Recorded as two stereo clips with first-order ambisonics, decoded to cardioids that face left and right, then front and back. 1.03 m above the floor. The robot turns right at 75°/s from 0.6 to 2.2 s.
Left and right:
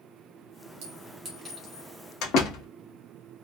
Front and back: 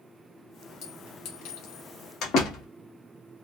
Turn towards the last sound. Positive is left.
turn(degrees=50)